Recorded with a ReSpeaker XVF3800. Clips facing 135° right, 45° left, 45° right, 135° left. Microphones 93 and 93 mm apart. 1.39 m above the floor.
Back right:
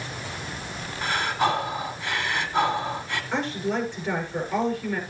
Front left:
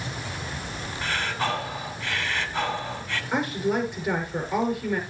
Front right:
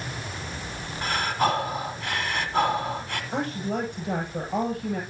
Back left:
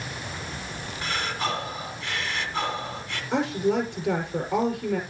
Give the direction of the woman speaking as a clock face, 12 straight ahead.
8 o'clock.